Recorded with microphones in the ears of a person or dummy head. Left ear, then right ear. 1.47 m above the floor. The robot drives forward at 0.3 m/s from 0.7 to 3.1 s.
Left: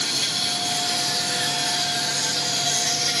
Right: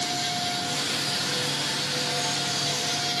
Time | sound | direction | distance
0.0 | an insect | 65° left (ahead or behind) | 3.5 m